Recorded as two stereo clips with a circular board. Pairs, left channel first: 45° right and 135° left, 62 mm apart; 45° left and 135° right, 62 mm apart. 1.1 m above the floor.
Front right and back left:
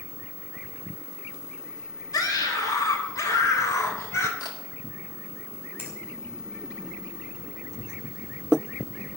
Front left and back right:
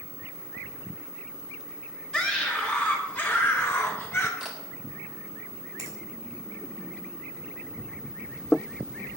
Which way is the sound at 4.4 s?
50° right.